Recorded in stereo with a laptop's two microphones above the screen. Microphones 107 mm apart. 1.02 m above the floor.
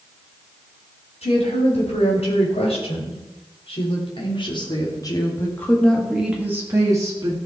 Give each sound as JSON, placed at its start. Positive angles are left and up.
{"t": 1.2, "sound": "a woman speaking", "side_deg": 75, "distance_m": 5.5}